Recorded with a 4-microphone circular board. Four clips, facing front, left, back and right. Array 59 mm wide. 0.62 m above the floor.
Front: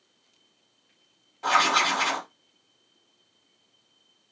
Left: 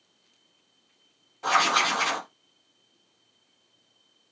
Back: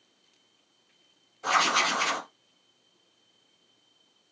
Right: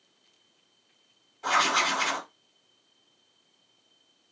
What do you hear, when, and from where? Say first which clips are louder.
1.4 s writing: left 2 dB, front 3 dB; 30° left, 1.7 m